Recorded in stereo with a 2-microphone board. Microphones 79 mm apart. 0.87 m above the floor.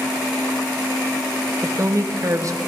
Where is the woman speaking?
40° right (ahead or behind), 0.7 m.